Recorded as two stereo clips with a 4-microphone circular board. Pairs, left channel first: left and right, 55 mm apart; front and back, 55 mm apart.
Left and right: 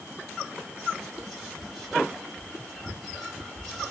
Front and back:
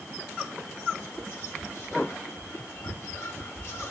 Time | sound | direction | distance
1.0 | whispering | 20° left | 1.3 m